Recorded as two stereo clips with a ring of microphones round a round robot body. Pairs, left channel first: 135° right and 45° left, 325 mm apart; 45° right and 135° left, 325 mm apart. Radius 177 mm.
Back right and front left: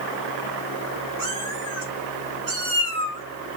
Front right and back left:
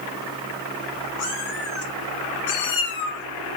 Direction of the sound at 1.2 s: 15° left.